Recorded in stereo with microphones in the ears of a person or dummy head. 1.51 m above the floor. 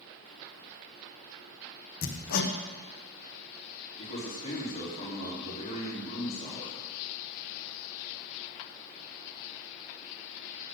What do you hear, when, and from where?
2.0 s hammering: 50° left (ahead or behind), 0.9 m
4.0 s a man speaking: 35° left (ahead or behind), 4 m